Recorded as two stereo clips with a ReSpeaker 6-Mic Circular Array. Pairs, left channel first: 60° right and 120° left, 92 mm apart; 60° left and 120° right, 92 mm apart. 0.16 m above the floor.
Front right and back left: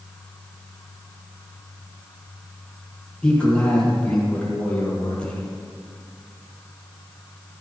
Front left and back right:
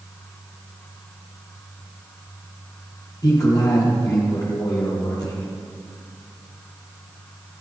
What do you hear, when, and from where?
3.2 s a man speaking: 20° left, 4.5 m